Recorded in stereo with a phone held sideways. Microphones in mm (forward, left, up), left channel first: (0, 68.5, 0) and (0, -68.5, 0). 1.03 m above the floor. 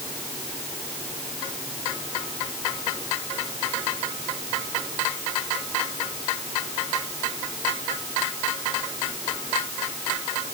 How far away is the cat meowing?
No cat meowing in this recording.